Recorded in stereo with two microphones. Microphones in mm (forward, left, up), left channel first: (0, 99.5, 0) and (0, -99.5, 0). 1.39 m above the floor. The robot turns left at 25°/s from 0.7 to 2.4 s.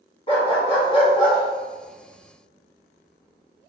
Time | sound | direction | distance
0.3 | a dog barking | 30° left (ahead or behind) | 1.1 m